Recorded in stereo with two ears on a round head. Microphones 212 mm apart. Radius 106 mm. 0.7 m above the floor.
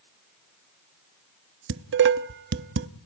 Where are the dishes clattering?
50° right (ahead or behind), 0.8 m.